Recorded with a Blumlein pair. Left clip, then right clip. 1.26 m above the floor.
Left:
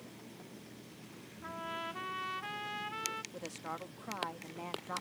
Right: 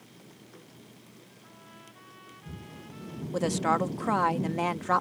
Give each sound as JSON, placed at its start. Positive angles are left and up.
{"t": 1.4, "sound": "a trumpet", "azimuth_deg": 55}
{"t": 3.3, "sound": "a woman speaking", "azimuth_deg": -35}